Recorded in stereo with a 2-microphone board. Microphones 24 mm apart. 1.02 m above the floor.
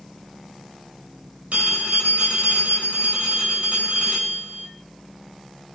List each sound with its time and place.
1.5 s a phone ringing: 90° right, 4 m